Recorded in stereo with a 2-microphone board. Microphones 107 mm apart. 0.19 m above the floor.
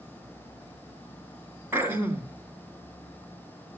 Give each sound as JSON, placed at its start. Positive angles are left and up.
{"t": 1.7, "sound": "throat clearing", "side_deg": -20, "distance_m": 1.7}